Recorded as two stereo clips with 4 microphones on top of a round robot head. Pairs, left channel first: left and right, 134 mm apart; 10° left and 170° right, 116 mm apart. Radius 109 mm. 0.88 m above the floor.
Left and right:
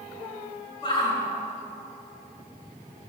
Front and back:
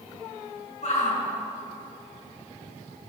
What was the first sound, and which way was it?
A shout, 35° left.